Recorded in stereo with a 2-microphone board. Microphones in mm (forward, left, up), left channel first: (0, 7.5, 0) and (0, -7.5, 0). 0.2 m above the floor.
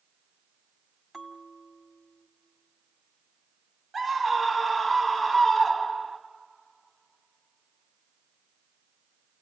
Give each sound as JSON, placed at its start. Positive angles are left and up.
{"t": 1.1, "sound": "a bell", "side_deg": -5, "distance_m": 1.6}
{"t": 3.9, "sound": "a scream", "side_deg": -20, "distance_m": 1.2}